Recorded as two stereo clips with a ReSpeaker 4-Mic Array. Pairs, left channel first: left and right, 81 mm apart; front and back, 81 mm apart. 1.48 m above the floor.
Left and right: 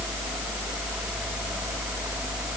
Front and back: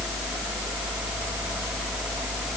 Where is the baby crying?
I don't hear a baby crying.